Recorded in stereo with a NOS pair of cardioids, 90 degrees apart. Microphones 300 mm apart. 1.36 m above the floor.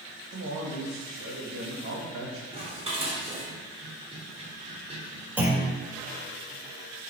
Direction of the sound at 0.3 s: 45° right.